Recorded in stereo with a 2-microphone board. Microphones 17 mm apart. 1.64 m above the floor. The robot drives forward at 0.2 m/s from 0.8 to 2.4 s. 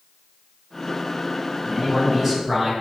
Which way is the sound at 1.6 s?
20° right (ahead or behind).